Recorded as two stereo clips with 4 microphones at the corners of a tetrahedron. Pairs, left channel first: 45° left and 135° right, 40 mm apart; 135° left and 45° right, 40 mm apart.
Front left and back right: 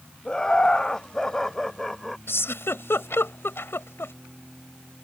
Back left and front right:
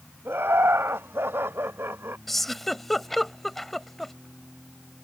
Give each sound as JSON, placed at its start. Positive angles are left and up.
{"t": 0.2, "sound": "laughter", "azimuth_deg": -30}
{"t": 2.3, "sound": "a giggle", "azimuth_deg": 50}